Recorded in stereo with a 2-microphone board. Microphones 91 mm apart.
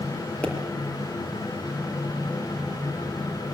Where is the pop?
15° left (ahead or behind), 5 m.